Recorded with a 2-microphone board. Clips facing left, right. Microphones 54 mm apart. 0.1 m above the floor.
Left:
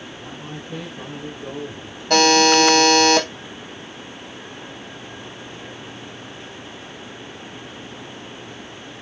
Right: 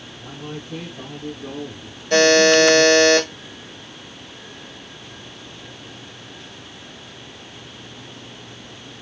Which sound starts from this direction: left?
A buzzer, at 2.1 s.